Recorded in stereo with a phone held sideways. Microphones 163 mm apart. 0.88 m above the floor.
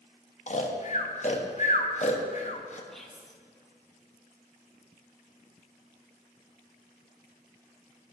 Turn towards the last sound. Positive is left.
turn(degrees=0)  # may be behind; listen again after turning